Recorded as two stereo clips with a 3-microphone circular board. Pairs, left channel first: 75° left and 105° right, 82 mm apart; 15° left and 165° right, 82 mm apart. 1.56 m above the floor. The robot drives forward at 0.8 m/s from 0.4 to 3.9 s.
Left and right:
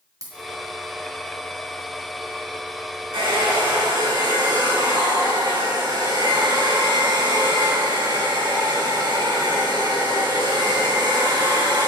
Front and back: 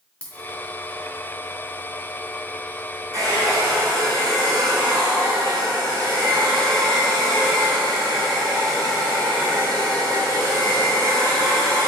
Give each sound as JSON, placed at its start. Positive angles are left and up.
{"t": 0.2, "sound": "a dropped coin", "azimuth_deg": -60, "distance_m": 3.5}
{"t": 3.1, "sound": "a hair dryer", "azimuth_deg": -120, "distance_m": 6.0}